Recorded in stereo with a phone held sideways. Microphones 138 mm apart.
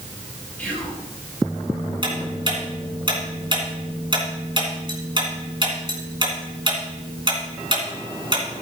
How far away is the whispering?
About 7 m.